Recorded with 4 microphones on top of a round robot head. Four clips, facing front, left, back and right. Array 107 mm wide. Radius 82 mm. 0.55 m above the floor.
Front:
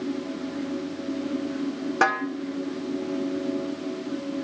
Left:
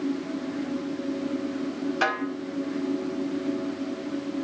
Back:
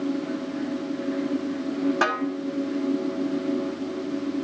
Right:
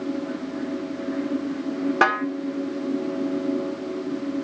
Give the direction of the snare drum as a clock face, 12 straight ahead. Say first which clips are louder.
Right 6 dB, front 1 dB; 3 o'clock.